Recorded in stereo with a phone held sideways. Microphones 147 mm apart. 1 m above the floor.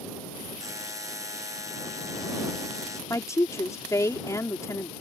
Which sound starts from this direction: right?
A buzzer, at 0.6 s.